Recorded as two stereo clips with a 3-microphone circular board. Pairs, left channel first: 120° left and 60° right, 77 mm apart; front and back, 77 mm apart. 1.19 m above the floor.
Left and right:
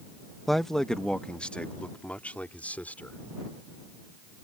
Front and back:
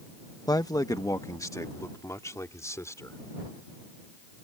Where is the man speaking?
30° left; by 3.2 s 50° left.